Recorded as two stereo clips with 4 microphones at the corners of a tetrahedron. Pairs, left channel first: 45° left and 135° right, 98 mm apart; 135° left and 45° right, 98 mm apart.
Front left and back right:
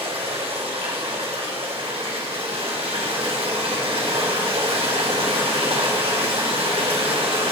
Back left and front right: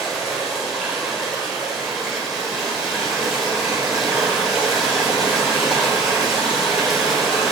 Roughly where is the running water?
Behind right.